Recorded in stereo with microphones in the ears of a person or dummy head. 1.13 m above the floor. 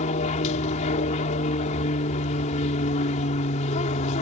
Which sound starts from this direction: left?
An aircraft, at 0.0 s.